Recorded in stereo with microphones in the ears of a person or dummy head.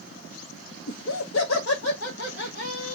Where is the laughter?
55° left (ahead or behind), 0.6 m; by 3.0 s 65° left (ahead or behind), 1.3 m.